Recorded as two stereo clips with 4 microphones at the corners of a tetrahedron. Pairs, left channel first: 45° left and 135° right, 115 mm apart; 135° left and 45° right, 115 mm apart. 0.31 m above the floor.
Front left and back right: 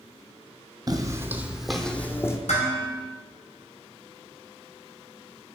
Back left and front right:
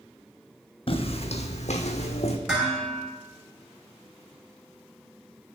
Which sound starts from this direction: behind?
Footsteps, at 0.9 s.